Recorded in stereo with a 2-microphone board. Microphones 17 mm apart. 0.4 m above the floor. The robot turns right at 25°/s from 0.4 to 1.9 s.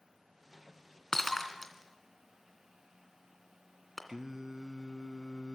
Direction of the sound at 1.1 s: 25° left (ahead or behind).